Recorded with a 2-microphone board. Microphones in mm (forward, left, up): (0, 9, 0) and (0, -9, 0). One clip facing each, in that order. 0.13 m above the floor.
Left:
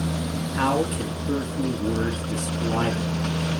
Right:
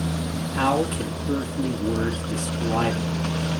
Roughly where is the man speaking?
Centre.